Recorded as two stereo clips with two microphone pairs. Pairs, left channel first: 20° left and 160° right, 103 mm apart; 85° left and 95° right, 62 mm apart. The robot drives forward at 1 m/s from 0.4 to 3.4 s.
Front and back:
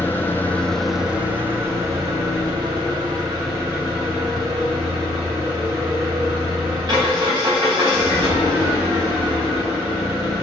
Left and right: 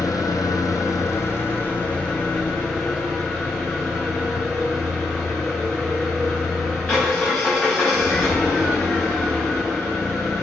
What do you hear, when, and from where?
0.0 s an engine running: 90° left, 1.2 m; by 10.4 s 160° left, 3.5 m